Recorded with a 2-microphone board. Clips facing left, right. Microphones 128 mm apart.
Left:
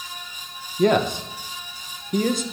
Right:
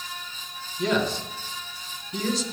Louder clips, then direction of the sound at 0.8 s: Left 6 dB; 55° left (ahead or behind).